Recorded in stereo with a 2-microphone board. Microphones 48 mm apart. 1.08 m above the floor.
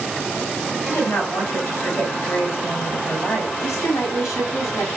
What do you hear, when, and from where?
0.9 s a woman speaking: 60° left (ahead or behind), 6.5 m
3.6 s a woman speaking: 85° left, 6.5 m